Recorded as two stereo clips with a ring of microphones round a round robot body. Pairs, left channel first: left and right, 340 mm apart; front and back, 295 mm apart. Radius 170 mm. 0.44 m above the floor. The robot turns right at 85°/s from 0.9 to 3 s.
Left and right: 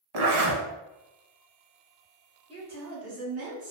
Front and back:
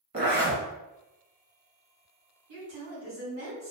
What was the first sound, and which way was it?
A zipper, 115° right.